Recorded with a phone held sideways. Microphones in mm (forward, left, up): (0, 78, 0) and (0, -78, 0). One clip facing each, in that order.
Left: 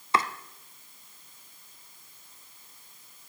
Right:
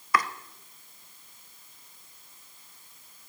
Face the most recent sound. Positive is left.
turn(degrees=25)  # may be behind; listen again after turning